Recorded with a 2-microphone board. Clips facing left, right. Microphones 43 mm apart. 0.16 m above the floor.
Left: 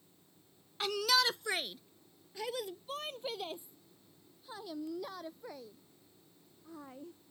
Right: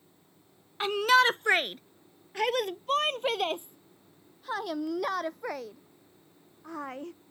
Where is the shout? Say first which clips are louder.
Right 9 dB; 30° right (ahead or behind); by 7.2 s 80° right.